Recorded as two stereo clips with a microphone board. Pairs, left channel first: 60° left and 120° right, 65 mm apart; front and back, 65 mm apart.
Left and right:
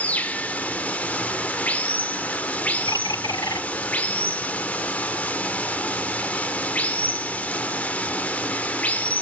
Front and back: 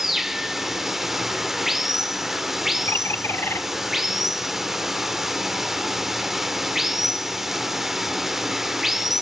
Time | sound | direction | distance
0.0 | running water | 100° left | 0.9 m
2.9 | a bird | 50° left | 0.7 m